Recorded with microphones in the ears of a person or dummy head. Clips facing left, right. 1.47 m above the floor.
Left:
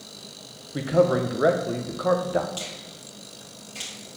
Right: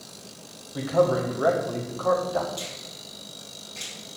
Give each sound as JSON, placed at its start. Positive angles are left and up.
{"t": 0.7, "sound": "a man speaking", "side_deg": 30, "distance_m": 1.1}
{"t": 2.6, "sound": "a finger snap", "side_deg": 45, "distance_m": 3.0}